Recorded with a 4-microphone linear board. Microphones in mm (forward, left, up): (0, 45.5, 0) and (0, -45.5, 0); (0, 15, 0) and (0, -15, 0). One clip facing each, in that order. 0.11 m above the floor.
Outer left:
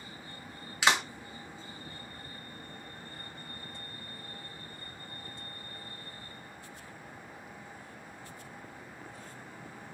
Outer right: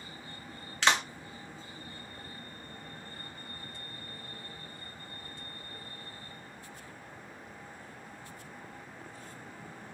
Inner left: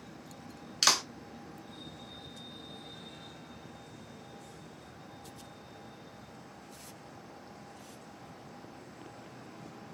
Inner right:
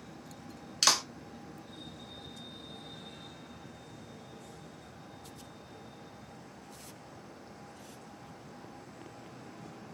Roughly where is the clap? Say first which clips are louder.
Even, even; centre.